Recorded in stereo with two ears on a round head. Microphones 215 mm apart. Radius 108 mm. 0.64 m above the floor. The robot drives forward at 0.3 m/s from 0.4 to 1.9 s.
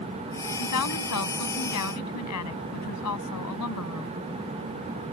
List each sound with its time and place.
0.6 s a woman speaking: 80° left